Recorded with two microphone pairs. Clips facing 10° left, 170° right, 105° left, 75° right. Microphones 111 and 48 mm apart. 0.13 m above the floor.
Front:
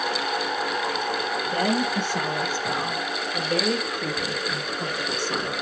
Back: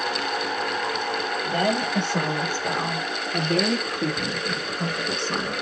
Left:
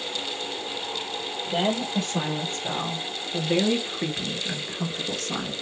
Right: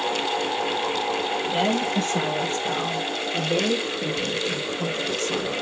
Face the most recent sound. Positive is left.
turn(degrees=120)